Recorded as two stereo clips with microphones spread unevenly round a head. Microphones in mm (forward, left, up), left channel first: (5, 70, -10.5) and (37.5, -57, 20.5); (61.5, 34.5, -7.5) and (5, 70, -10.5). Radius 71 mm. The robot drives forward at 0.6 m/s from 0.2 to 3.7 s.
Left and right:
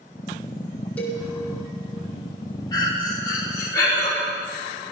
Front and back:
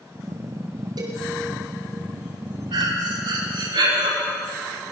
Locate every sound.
1.0 s a cowbell: 170° right, 4 m
2.7 s breathing: 170° left, 3.5 m